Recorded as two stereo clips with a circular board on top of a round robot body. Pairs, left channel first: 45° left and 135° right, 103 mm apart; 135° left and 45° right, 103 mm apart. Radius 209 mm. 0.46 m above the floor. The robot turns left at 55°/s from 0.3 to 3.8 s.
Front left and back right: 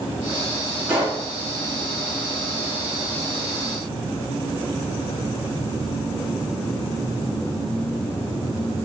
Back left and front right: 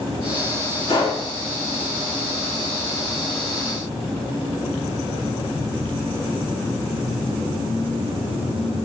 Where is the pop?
150° left, 1.9 m; by 1.2 s 130° left, 1.9 m.